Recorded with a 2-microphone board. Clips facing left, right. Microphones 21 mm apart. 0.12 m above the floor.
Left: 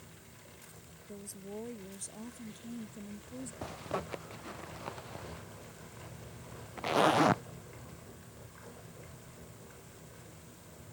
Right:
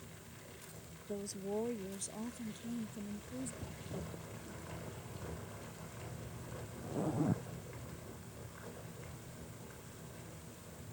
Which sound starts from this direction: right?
A woman speaking, at 1.1 s.